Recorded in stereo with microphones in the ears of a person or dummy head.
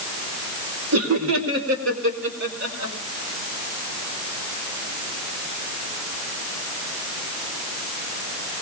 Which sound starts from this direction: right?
Laughter, at 0.9 s.